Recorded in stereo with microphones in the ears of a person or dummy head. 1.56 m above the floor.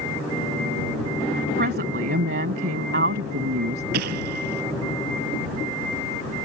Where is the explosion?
60° right (ahead or behind).